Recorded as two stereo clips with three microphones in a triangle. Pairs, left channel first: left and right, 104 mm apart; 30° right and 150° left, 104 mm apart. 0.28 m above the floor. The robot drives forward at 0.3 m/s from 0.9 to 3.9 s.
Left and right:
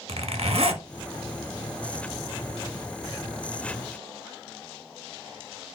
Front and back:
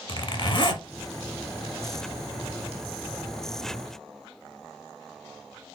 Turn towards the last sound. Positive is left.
turn(degrees=-145)